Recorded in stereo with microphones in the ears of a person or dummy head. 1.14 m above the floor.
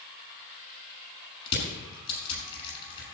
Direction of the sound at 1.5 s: 30° left (ahead or behind).